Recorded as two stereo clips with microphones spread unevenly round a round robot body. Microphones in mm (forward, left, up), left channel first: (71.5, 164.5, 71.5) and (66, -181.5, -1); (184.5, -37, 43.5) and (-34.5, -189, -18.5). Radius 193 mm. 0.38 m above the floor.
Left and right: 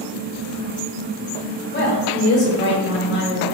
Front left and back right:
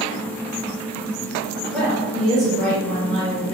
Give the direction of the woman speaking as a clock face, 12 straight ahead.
7 o'clock.